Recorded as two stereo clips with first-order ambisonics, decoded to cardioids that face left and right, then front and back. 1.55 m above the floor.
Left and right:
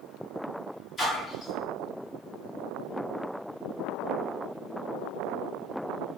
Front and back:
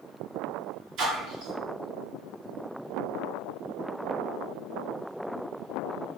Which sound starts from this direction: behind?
A splash, at 1.0 s.